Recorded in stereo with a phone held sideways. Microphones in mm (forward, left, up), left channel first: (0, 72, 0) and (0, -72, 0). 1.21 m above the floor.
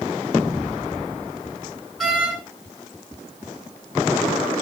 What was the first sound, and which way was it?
A door slam, centre (ahead or behind).